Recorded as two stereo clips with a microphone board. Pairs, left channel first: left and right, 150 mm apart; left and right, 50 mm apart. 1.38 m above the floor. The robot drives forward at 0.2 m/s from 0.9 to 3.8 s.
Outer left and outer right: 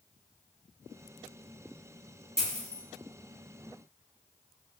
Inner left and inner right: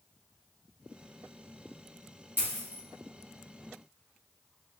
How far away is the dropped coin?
About 0.9 m.